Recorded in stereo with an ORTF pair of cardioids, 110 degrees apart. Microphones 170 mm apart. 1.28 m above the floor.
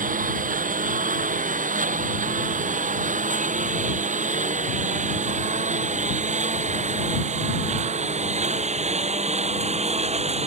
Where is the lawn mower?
50° right; by 10.5 s 40° right.